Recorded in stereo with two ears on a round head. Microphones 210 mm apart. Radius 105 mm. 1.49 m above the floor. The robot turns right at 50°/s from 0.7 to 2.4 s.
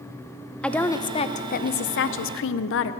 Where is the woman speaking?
5° left, 0.6 m; by 2.9 s 90° left, 0.6 m.